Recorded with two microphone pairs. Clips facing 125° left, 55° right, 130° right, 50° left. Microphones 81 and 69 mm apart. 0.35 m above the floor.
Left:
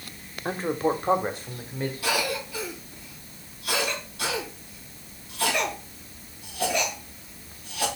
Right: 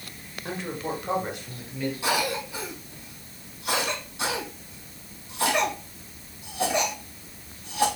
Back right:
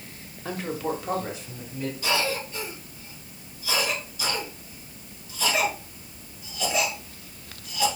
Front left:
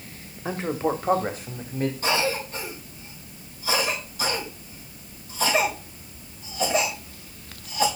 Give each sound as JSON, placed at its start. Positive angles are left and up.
{"t": 0.5, "sound": "a man speaking", "azimuth_deg": 110, "distance_m": 1.2}
{"t": 2.0, "sound": "a cough", "azimuth_deg": 10, "distance_m": 4.0}